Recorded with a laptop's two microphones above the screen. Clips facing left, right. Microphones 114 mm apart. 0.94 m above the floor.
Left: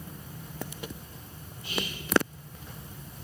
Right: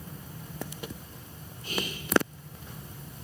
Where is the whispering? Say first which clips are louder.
Even; 45° right (ahead or behind), 0.5 m.